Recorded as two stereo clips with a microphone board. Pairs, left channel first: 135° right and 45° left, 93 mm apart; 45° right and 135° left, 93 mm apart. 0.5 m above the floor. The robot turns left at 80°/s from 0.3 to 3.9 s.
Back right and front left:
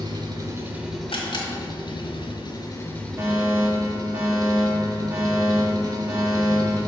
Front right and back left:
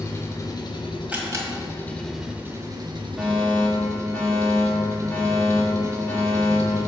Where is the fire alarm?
55° left, 1.8 m; by 6.8 s straight ahead, 1.8 m.